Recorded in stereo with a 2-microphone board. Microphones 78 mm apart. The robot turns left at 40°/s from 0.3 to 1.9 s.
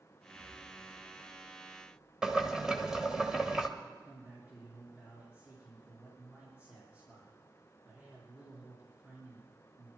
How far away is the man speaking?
About 5.5 m.